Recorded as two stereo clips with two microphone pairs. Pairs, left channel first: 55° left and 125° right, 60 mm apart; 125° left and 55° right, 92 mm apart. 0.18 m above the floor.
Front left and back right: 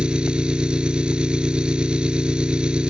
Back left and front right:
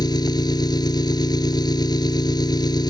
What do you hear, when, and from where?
0.0 s an engine running: 160° left